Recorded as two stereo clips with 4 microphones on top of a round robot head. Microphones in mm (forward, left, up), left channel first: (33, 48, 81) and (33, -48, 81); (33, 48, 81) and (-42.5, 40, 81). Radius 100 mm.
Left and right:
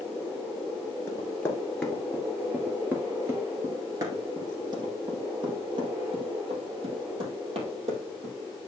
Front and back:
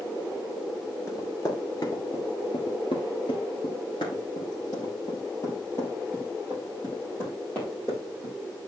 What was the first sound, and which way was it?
Running footsteps, 35° left.